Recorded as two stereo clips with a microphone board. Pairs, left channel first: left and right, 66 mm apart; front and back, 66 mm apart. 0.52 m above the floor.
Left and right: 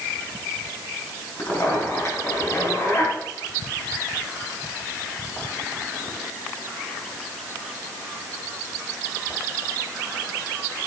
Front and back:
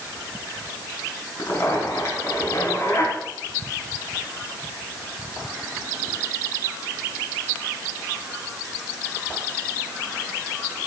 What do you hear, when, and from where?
1.4 s a zipper: 45° left, 4 m